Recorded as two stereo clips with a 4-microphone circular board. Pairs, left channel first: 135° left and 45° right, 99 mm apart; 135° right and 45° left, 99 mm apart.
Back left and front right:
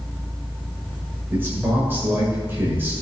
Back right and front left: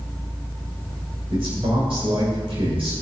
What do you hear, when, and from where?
1.3 s a man speaking: 25° left, 5.5 m